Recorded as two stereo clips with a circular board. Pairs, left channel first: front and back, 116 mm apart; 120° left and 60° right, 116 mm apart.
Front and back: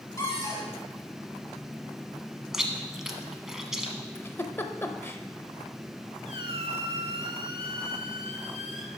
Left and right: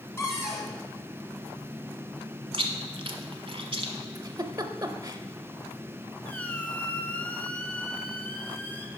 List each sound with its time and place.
0.2 s a cupboard door: 55° left, 2 m
2.5 s chewing: 95° right, 0.9 m
4.2 s a giggle: 50° right, 0.6 m
6.2 s a squeak: 170° right, 0.9 m